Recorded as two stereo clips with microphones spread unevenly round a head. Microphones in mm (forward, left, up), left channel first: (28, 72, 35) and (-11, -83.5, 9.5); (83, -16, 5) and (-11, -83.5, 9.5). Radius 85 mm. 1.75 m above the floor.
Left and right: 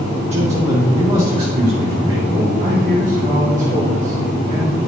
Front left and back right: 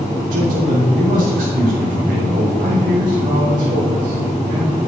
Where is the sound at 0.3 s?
160° right, 5.5 m; by 2.5 s 170° right, 4.5 m.